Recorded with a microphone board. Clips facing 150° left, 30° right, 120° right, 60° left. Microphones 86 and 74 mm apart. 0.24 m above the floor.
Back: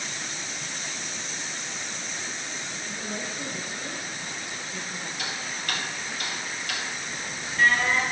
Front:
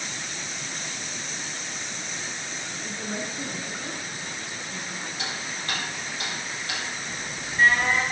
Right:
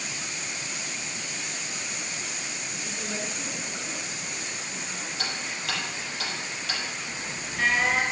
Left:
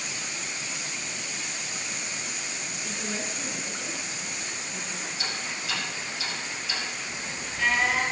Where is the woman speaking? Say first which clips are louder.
Front 2 dB, even; 20° right, 2.5 m.